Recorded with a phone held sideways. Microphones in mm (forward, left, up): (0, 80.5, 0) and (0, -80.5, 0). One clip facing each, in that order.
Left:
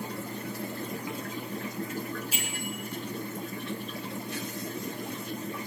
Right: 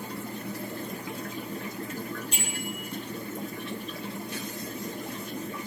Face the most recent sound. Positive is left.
turn(degrees=5)  # may be behind; listen again after turning